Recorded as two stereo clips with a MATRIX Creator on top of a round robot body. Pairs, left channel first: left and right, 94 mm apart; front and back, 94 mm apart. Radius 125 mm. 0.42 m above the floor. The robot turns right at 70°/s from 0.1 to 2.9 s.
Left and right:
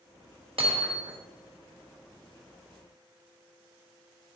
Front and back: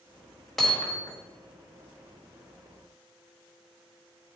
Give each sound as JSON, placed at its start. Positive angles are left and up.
{"t": 0.6, "sound": "hammering", "azimuth_deg": -85, "distance_m": 1.4}